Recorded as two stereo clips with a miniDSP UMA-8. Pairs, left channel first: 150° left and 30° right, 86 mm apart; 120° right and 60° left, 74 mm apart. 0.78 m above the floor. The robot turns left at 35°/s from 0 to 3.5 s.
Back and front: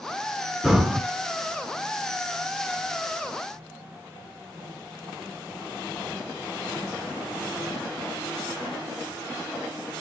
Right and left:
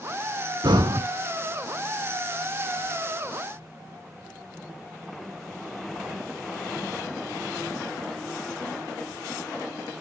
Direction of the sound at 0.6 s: 55° left.